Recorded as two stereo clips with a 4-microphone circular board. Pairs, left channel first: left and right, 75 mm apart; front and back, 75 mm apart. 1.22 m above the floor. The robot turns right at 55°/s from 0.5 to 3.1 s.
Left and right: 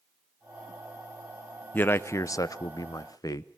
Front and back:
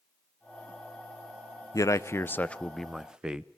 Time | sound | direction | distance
1.7 | a man speaking | 25° left | 0.7 m